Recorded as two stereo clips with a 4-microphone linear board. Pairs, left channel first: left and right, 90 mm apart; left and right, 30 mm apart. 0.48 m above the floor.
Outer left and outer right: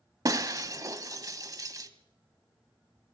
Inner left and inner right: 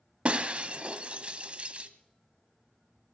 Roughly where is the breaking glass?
Right.